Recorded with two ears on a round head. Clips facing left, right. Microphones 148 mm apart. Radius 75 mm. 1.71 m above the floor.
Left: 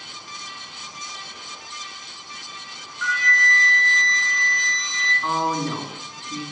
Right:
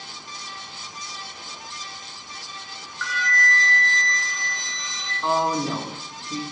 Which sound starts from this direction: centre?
A woman speaking, at 5.2 s.